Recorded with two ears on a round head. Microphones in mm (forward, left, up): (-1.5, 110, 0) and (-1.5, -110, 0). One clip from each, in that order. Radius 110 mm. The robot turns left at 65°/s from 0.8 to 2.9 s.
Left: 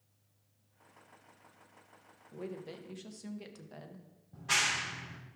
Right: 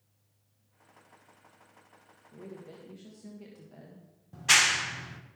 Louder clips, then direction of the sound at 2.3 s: Left 3 dB; 80° left.